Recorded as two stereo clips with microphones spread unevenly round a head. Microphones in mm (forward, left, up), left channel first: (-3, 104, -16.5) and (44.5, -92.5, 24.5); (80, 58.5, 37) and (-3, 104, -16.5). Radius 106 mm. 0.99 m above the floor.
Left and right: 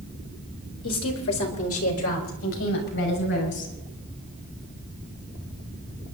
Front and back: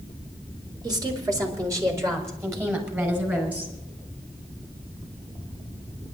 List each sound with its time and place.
0.8 s a woman speaking: 115° left, 4 m; by 3.7 s 80° left, 7 m